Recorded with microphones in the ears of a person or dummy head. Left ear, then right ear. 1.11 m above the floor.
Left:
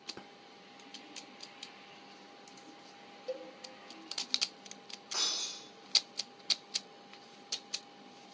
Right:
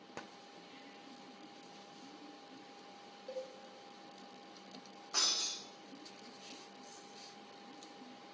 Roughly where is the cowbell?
Left.